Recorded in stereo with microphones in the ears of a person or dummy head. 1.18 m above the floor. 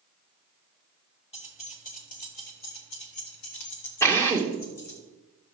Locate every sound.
1.3 s keys jangling: 25° left (ahead or behind), 1.4 m; by 5.0 s 65° left (ahead or behind), 2.5 m
4.0 s a drill: 10° left (ahead or behind), 1.1 m